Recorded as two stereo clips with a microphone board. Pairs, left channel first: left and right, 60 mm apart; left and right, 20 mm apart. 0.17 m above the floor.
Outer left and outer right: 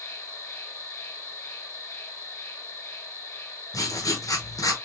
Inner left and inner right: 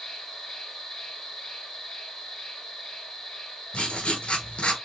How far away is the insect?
About 2.5 m.